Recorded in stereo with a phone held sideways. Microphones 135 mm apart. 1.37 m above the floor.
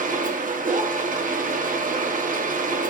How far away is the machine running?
About 0.8 m.